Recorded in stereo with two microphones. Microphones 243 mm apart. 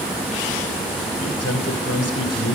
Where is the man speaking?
80° left, 3 m.